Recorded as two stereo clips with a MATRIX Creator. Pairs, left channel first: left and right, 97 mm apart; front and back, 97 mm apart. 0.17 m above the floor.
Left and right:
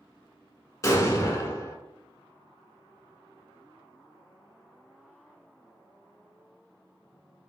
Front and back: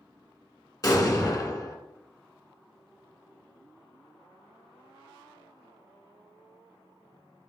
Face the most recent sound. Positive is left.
turn(degrees=40)